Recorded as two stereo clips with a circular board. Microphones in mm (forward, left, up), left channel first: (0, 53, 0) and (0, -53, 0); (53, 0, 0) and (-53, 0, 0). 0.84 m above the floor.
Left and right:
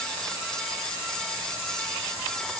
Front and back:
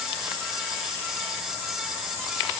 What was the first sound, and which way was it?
Only background noise.